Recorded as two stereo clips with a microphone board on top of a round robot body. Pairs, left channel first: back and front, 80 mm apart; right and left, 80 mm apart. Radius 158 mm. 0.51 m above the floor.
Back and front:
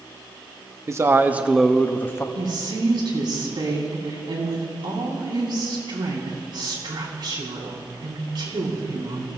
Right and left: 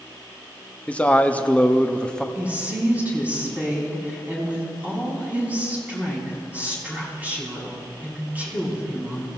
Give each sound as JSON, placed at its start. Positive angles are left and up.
{"t": 0.9, "sound": "a man speaking", "azimuth_deg": -25, "distance_m": 1.4}
{"t": 2.4, "sound": "a woman speaking", "azimuth_deg": 20, "distance_m": 5.0}